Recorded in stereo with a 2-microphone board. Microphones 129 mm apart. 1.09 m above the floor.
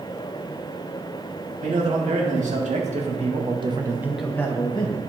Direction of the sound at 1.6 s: 75° right (ahead or behind).